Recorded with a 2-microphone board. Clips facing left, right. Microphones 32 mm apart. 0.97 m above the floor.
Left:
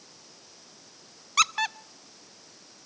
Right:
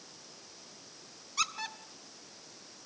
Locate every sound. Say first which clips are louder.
1.4 s a squeak: left 10 dB; 90° left, 0.6 m